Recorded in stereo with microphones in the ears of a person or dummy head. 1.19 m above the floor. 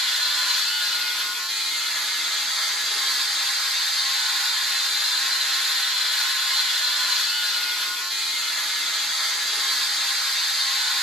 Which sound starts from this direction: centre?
A machine running, at 0.0 s.